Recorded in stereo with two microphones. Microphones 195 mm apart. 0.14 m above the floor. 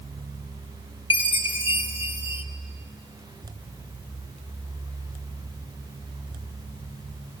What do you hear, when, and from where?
1.1 s a chime: 30° left (ahead or behind), 0.9 m